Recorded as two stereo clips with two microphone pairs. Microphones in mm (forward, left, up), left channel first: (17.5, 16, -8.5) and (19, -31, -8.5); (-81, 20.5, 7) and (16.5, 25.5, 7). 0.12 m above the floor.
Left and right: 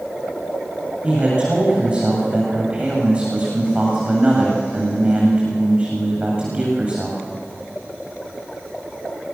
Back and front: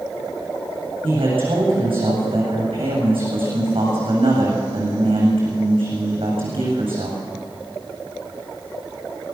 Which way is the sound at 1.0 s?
20° right.